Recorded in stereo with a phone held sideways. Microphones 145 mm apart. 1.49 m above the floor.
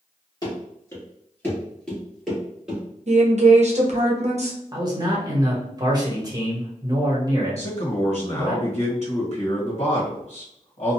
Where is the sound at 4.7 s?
30° right (ahead or behind), 1.1 m.